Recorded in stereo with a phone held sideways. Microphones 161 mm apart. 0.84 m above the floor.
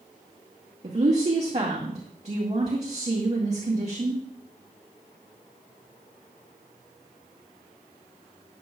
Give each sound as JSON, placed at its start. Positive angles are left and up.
{"t": 0.8, "sound": "a woman speaking", "side_deg": -45, "distance_m": 1.8}